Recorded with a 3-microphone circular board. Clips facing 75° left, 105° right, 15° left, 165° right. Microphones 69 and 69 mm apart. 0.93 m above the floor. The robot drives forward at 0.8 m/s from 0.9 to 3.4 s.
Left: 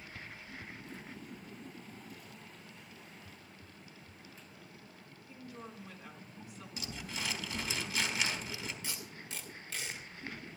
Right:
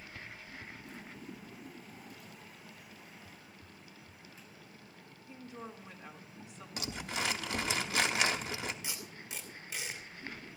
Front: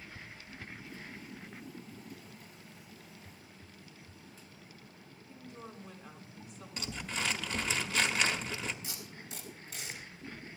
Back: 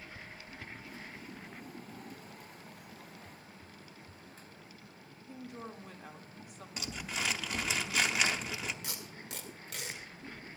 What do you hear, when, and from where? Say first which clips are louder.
5.3 s a woman speaking: right 2 dB, back 4 dB; 170° right, 2.0 m
6.8 s crumpling: right 5 dB, front 1 dB; 80° right, 1.1 m
8.8 s tape being pulled: even, back 1 dB; straight behind, 2.5 m